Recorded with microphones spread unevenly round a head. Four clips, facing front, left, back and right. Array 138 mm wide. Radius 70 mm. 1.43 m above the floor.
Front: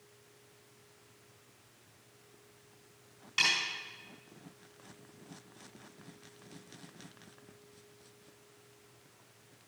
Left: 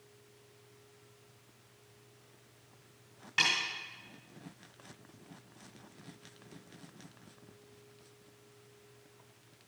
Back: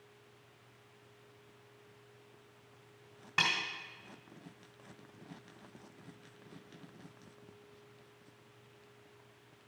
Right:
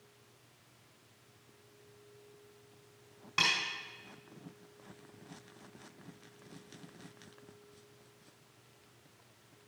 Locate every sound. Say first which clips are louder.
3.4 s a snare drum: even, back 1 dB; 175° right, 1.8 m